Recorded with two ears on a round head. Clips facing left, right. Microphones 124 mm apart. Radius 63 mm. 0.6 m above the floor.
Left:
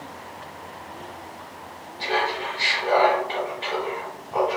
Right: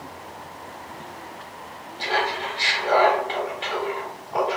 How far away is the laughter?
About 1.9 m.